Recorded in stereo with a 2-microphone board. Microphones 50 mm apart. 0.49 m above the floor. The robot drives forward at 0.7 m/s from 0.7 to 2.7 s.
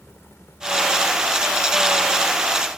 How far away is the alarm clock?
No alarm clock in this recording.